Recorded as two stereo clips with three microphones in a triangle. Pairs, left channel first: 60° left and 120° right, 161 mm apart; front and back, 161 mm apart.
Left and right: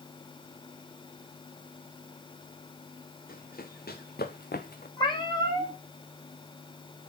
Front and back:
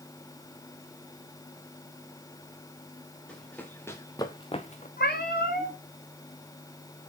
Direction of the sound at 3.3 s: 85° left.